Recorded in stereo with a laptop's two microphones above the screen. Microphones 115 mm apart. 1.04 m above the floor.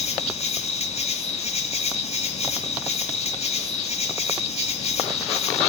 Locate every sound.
0.0 s an insect: 60° left (ahead or behind), 3 m